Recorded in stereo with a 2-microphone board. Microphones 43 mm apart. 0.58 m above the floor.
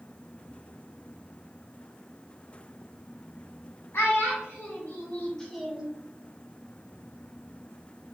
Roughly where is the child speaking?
Left.